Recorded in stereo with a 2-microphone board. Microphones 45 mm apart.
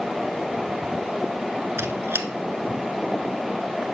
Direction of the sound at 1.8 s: 65° right (ahead or behind).